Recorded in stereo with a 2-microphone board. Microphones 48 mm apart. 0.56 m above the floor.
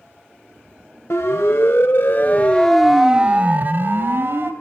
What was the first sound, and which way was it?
A siren, 75° left (ahead or behind).